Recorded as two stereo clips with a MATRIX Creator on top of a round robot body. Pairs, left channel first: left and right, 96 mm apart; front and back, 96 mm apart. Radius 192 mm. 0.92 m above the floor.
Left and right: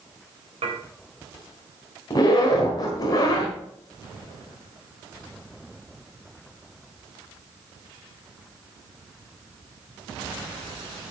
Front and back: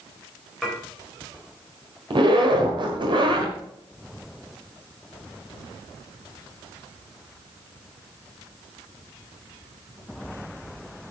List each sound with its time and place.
0.6 s dishes clattering: 90° right, 3.5 m
2.1 s a zipper: 145° left, 1.6 m